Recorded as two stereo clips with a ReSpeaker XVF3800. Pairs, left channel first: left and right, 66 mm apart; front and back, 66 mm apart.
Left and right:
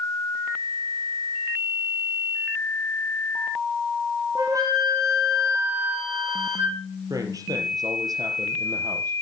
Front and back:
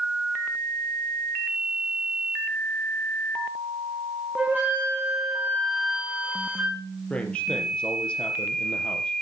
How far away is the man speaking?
About 3 m.